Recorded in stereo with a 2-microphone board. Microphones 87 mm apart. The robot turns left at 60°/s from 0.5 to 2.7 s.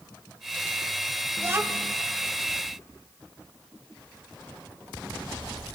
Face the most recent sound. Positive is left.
turn(degrees=-110)